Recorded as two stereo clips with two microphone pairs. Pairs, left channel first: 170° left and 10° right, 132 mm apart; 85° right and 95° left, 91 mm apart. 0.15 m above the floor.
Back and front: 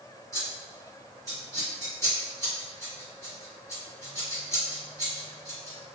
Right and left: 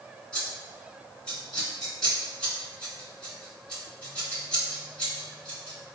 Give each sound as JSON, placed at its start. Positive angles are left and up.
{"t": 0.3, "sound": "scissors", "azimuth_deg": -160, "distance_m": 1.8}